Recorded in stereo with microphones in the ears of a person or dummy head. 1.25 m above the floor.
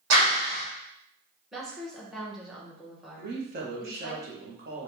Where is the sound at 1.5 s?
5° right (ahead or behind), 1.2 m.